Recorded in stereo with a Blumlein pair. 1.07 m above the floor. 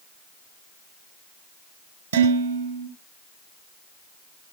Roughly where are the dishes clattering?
Right.